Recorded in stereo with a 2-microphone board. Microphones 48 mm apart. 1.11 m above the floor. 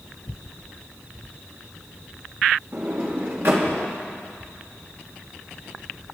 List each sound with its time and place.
2.7 s a sliding door: 50° right (ahead or behind), 2.5 m